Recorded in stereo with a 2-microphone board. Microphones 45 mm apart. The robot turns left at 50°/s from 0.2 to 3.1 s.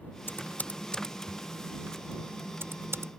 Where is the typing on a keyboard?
55° left (ahead or behind); by 3.1 s 80° right.